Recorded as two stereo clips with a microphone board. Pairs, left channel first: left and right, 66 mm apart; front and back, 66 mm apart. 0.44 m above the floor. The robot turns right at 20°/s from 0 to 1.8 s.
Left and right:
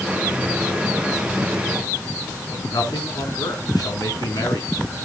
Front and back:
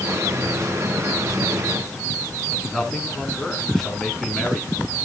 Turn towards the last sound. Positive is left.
turn(degrees=85)